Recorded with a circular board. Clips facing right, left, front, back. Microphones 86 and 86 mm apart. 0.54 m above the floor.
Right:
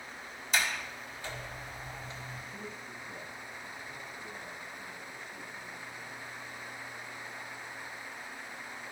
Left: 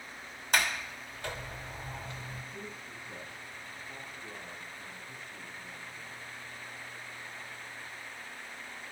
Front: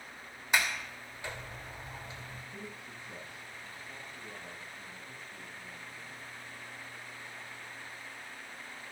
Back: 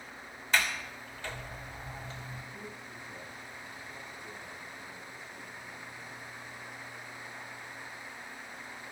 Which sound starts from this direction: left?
A sliding door, at 0.5 s.